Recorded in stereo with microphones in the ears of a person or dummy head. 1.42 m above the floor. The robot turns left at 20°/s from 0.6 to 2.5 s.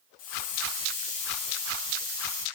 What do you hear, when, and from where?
0.2 s a hiss: 55° left, 0.8 m; by 2.5 s 20° left, 0.8 m